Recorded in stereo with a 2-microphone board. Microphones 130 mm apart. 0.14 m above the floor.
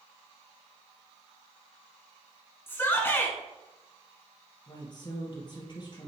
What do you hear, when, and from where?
2.7 s a shout: 15° left (ahead or behind), 1.3 m
4.7 s a woman speaking: 35° left (ahead or behind), 3 m